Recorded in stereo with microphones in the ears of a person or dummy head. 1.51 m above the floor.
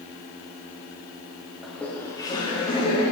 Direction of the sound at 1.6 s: 5° right (ahead or behind).